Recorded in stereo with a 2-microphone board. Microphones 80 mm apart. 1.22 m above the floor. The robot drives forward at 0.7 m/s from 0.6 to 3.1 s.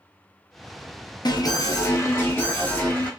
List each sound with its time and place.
1.2 s an alarm: 60° left (ahead or behind), 0.7 m; by 3.1 s 20° left (ahead or behind), 1.7 m